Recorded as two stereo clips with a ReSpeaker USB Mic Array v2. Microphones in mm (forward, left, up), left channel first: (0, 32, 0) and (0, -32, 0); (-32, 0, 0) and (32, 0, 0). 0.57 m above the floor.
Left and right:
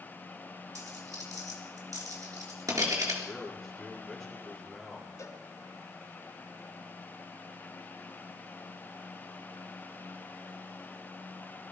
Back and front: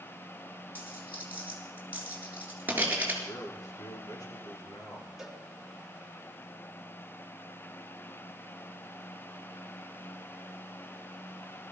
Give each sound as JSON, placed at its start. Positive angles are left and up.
{"t": 0.8, "sound": "a dropped coin", "azimuth_deg": -65, "distance_m": 4.0}
{"t": 3.2, "sound": "a man speaking", "azimuth_deg": 180, "distance_m": 7.0}
{"t": 5.2, "sound": "a cowbell", "azimuth_deg": 85, "distance_m": 1.8}